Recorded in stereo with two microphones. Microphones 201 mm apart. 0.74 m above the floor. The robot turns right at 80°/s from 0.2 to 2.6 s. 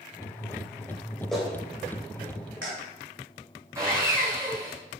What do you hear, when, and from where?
1.3 s a clap: 5° left (ahead or behind), 3 m; by 2.7 s 75° right (ahead or behind), 3 m
3.8 s sawing: 15° right (ahead or behind), 4 m